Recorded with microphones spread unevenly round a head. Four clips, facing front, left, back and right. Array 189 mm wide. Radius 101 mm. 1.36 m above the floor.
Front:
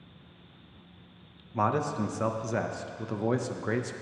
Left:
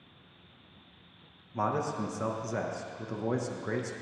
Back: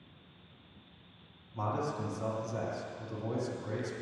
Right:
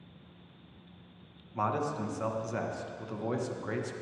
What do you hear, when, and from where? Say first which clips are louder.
1.5 s a man speaking: left 1 dB, front 7 dB; 25° left, 1.2 m